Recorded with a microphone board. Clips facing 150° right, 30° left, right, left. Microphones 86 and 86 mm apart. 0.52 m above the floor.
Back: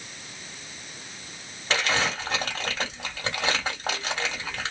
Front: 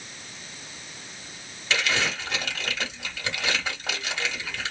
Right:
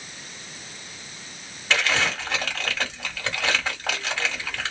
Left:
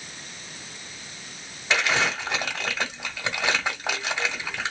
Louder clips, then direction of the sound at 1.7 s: Back 1 dB, even; 165° left.